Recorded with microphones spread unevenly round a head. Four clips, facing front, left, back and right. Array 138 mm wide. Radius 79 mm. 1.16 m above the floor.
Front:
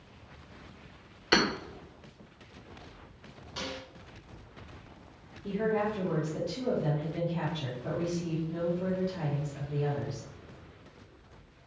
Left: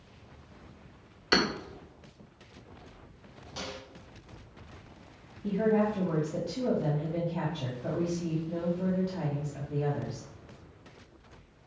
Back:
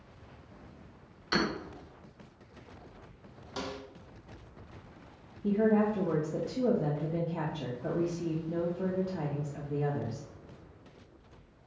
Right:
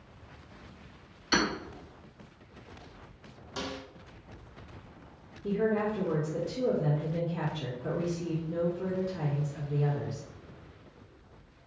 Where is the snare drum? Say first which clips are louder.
Right 3 dB, back 1 dB; 170° right, 1.2 m.